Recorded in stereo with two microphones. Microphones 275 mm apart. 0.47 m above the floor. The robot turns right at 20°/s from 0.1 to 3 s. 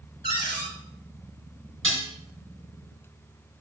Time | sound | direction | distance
0.2 | a cupboard door | 35° left (ahead or behind) | 4 m
1.8 | dishes clattering | 50° right (ahead or behind) | 4.5 m